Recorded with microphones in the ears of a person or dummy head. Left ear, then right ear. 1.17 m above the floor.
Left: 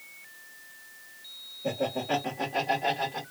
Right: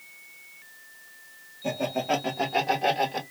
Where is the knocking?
I don't hear knocking.